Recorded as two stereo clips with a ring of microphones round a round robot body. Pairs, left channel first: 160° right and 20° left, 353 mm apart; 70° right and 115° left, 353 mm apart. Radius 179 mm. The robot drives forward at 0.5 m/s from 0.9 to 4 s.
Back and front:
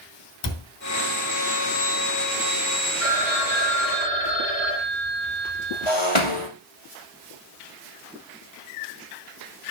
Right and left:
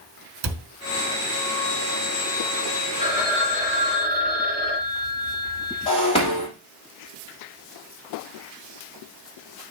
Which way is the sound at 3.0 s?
170° right.